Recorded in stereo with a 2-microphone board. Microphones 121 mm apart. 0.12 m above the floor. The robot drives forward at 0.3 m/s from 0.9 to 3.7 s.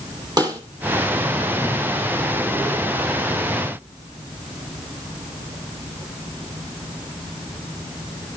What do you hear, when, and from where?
0.4 s a snare drum: 35° right (ahead or behind), 3 m